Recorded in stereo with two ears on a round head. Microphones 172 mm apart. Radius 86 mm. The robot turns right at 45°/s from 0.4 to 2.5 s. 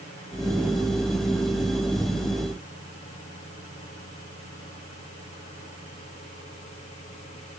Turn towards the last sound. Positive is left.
No sound to turn to.